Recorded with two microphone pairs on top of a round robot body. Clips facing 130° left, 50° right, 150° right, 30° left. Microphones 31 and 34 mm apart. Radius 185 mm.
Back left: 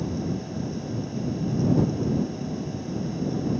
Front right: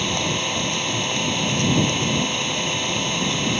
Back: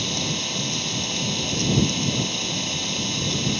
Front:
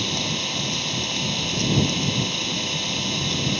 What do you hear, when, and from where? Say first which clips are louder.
0.0 s an engine running: front right 7 dB, front 1 dB; 55° right